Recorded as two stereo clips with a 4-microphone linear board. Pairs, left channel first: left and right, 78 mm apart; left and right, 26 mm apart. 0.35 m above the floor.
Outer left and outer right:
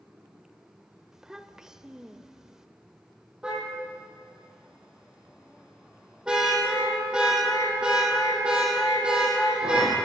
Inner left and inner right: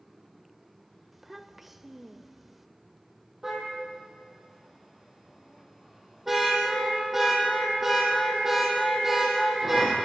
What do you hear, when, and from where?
1.1 s a child speaking: 5° right (ahead or behind), 0.8 m
3.4 s a car horn: 10° right (ahead or behind), 6.5 m